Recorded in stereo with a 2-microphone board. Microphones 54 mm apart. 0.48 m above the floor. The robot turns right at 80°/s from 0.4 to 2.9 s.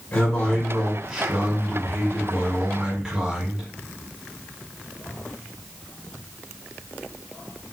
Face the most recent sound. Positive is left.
turn(degrees=-20)